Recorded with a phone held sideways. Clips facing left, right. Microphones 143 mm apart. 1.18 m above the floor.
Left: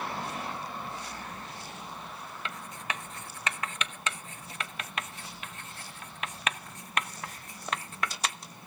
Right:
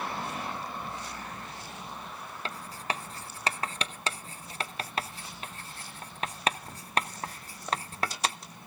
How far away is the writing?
About 0.7 m.